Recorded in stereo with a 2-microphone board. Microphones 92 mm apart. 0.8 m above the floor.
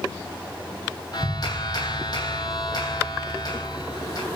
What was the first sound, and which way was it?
A clap, 45° left (ahead or behind).